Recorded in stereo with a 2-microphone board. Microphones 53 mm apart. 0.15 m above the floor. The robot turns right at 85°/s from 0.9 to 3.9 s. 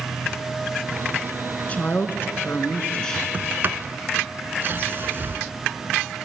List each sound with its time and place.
1.7 s a woman speaking: 40° left, 1.4 m; by 3.2 s 170° left, 1.4 m
3.3 s a sliding door: 30° right (ahead or behind), 0.8 m; by 5.4 s 45° right (ahead or behind), 0.8 m